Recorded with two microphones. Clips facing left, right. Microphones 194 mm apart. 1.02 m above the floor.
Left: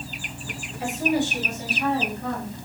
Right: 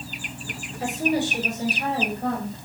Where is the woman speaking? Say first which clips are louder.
Even; 40° right (ahead or behind), 5 m.